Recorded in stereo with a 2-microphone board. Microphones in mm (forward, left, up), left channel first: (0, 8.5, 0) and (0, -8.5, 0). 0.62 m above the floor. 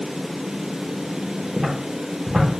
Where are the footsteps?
50° right (ahead or behind), 0.9 m.